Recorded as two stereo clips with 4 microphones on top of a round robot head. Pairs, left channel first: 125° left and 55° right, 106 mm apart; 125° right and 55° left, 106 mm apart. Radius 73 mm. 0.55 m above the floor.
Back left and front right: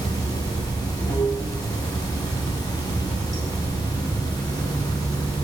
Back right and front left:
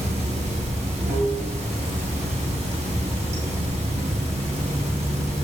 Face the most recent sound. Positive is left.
turn(degrees=75)